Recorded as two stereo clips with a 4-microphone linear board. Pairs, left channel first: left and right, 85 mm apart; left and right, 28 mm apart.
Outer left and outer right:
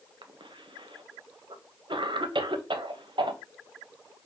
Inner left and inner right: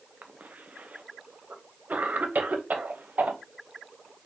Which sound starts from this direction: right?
A cough, at 0.2 s.